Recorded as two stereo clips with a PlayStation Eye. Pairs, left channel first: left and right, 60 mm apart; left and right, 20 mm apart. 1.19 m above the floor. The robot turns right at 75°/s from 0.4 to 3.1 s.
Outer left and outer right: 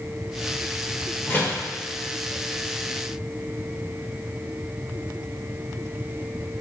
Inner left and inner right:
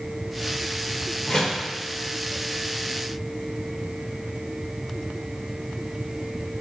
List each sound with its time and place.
1.3 s a door slam: 35° left (ahead or behind), 3 m; by 1.6 s 10° left (ahead or behind), 3 m